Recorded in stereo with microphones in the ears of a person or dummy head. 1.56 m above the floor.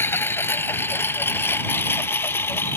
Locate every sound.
0.0 s a lawn mower: 10° left (ahead or behind)